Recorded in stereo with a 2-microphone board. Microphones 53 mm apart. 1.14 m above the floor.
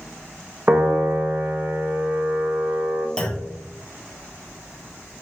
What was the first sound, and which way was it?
A piano, 30° right (ahead or behind).